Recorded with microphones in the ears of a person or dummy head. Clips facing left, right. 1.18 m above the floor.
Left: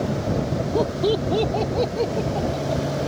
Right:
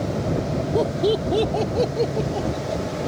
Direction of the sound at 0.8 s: 5° right (ahead or behind).